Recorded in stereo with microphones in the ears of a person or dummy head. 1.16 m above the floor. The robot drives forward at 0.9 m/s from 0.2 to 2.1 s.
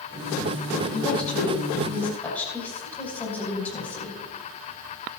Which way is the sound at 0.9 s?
10° left (ahead or behind).